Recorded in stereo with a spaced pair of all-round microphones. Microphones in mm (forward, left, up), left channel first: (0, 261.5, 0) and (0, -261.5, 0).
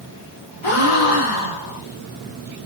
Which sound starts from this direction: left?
A gasp, at 0.6 s.